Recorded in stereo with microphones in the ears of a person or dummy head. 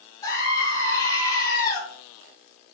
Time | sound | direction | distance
0.2 | a scream | 20° left (ahead or behind) | 4 m